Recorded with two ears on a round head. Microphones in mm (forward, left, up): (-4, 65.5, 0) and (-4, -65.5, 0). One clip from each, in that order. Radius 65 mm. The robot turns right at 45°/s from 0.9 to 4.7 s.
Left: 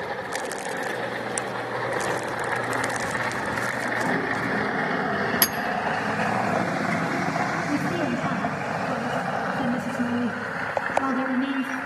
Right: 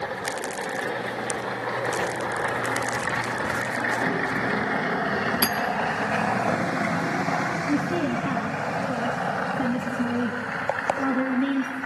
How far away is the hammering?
About 3 m.